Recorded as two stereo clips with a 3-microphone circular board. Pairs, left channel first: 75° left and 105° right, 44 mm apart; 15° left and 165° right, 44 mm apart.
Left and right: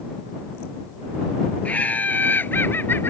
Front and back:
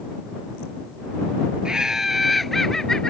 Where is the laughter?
125° left; by 3.1 s 85° left.